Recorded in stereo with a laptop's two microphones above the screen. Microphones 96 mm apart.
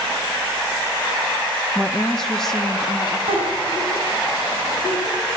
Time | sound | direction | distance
1.8 | a woman speaking | centre (ahead or behind) | 1.3 m
3.3 | a giggle | 85° right | 8 m